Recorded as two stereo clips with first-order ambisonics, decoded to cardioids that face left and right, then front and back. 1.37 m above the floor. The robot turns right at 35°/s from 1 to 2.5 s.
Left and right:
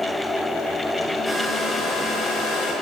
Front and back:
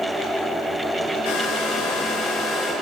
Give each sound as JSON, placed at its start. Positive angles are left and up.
{"t": 1.2, "sound": "a hair dryer", "azimuth_deg": 10, "distance_m": 9.0}